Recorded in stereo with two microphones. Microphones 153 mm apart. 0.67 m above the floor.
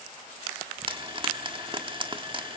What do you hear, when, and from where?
0.9 s frying: 35° right (ahead or behind), 1.3 m